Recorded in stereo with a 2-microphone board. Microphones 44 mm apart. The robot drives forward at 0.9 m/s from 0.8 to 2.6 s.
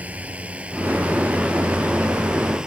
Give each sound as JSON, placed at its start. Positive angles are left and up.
{"t": 0.0, "sound": "a drone", "side_deg": -30}